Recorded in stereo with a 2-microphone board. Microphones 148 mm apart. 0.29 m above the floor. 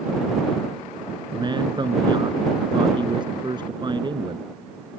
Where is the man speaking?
30° right (ahead or behind).